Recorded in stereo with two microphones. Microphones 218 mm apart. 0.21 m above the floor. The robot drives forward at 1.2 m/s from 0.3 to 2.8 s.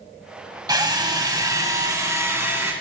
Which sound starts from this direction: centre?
A drill, at 0.7 s.